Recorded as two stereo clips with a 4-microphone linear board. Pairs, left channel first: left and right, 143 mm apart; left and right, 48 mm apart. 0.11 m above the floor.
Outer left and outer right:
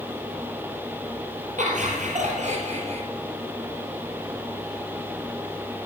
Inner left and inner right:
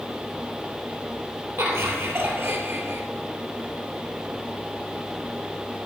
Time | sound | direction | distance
1.6 | laughter | 60° right (ahead or behind) | 3 m